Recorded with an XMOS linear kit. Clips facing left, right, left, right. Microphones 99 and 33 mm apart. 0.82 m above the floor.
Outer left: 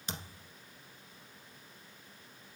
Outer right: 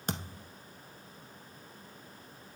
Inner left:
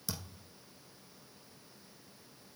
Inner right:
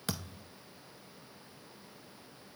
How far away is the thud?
About 1.1 m.